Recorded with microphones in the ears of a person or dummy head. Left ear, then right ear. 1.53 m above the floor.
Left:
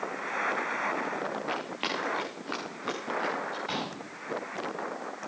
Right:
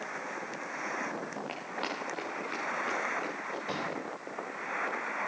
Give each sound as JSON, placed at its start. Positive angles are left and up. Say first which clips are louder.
{"t": 1.5, "sound": "running footsteps", "louder": "left 4 dB", "side_deg": -5, "distance_m": 8.5}
{"t": 3.7, "sound": "a pop", "louder": "left 1 dB", "side_deg": 20, "distance_m": 6.5}